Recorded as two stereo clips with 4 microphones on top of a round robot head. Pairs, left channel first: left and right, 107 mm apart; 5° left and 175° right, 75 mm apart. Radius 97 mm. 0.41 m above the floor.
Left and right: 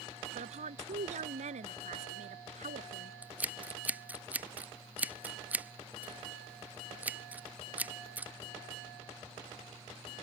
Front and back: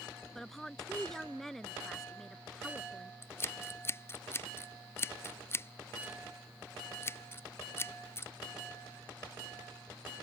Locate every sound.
0.3 s a woman speaking: 80° right
3.2 s scissors: 25° right